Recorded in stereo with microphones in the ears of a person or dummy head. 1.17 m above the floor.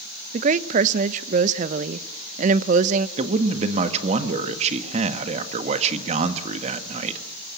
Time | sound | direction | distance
0.3 | a woman speaking | 45° right (ahead or behind) | 0.8 m
3.2 | a man speaking | 40° right (ahead or behind) | 1.6 m